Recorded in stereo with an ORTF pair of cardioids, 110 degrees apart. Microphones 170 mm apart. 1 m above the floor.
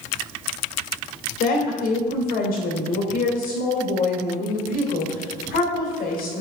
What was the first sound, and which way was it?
A woman speaking, 60° left.